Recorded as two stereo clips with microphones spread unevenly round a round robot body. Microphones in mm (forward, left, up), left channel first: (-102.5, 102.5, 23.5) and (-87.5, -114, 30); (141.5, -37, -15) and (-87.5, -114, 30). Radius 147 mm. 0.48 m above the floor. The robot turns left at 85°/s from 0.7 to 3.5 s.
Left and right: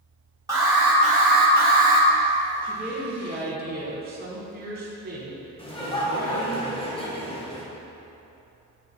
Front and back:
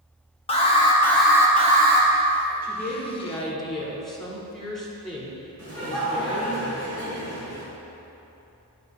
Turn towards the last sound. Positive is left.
turn(degrees=150)